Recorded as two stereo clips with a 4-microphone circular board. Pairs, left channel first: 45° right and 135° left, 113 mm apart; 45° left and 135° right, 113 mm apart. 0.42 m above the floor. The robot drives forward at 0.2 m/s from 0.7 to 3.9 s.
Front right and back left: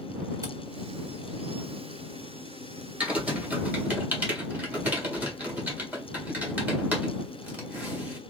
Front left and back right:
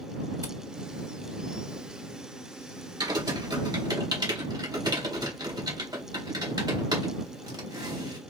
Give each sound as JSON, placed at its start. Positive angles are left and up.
{"t": 0.4, "sound": "a camera shutter", "azimuth_deg": 180, "distance_m": 1.5}
{"t": 3.0, "sound": "typing on a keyboard", "azimuth_deg": -155, "distance_m": 1.6}